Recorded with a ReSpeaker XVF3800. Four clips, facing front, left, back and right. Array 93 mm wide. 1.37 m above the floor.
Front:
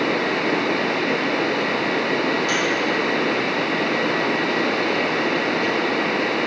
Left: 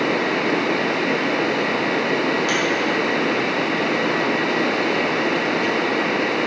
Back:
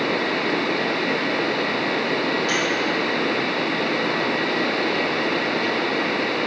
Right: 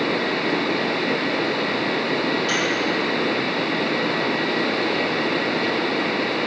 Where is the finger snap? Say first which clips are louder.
Left 2 dB, front 1 dB; 90° left, 2.0 m.